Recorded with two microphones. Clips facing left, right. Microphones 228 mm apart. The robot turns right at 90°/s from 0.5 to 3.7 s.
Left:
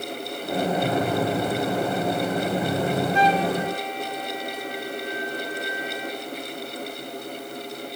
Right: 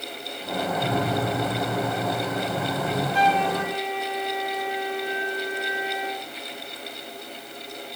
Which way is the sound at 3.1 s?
145° right.